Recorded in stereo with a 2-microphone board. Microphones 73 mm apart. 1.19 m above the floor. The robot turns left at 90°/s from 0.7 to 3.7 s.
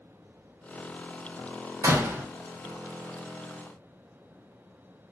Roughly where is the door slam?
Behind right.